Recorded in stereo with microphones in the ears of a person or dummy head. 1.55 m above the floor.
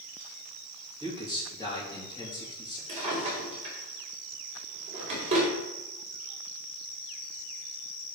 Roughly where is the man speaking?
Centre.